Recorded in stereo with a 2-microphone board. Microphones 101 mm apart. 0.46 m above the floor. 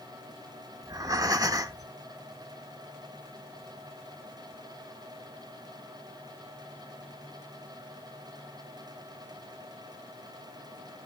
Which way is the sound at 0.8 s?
35° right (ahead or behind).